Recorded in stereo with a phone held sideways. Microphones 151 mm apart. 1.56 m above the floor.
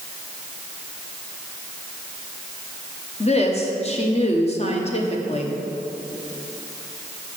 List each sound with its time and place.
3.2 s a woman speaking: 45° left (ahead or behind), 1.0 m